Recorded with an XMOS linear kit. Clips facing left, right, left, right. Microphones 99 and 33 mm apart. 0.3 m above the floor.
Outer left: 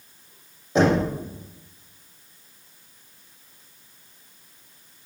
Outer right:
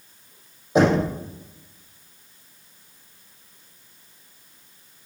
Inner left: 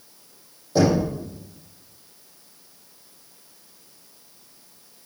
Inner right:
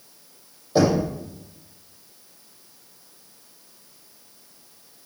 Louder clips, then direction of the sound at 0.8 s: Outer right 1 dB, even; 10° right (ahead or behind).